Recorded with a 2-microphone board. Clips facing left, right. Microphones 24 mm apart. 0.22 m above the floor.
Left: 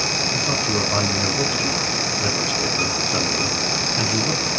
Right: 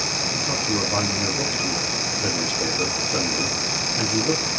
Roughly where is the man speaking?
Left.